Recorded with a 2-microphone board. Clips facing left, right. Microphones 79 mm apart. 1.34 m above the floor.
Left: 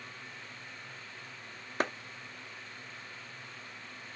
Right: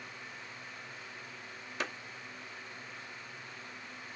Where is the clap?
40° left (ahead or behind), 0.6 m.